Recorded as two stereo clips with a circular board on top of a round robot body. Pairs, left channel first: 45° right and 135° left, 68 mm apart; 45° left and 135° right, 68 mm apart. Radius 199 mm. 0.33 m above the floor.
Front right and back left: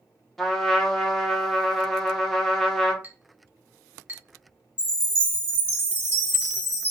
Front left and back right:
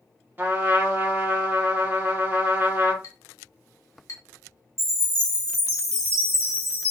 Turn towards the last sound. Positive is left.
turn(degrees=-100)